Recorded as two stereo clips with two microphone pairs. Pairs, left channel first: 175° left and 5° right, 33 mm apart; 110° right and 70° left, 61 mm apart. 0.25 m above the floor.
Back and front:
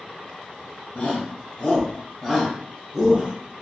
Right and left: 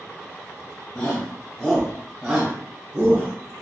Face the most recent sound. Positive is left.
turn(degrees=45)